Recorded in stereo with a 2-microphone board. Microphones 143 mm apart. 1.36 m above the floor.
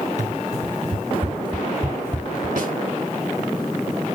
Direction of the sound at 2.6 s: 75° right (ahead or behind).